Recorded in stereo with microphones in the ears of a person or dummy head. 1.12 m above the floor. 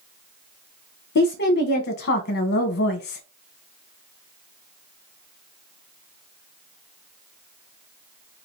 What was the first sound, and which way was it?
A woman speaking, 50° left (ahead or behind).